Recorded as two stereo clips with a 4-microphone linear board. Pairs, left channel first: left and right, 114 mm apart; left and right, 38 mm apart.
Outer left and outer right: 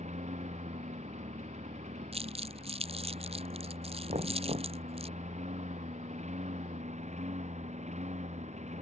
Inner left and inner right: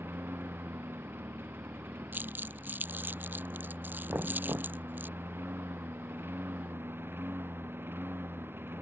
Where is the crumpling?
60° right (ahead or behind).